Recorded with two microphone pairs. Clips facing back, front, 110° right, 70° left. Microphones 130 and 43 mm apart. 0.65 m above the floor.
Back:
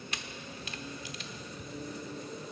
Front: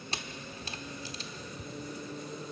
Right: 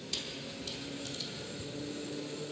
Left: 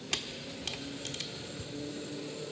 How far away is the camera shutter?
About 1.0 m.